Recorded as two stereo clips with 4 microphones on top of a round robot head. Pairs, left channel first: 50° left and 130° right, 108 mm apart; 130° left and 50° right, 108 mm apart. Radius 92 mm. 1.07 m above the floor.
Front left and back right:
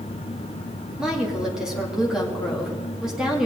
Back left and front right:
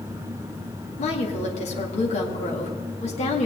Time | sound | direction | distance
1.0 | a woman speaking | 145° left | 2.5 m